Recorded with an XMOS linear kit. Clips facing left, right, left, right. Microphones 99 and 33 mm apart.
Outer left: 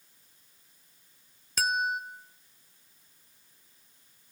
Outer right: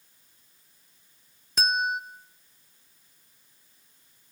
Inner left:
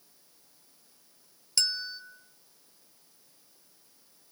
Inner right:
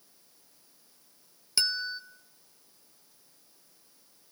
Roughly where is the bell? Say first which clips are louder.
Outer right 2 dB, inner right 1 dB; centre.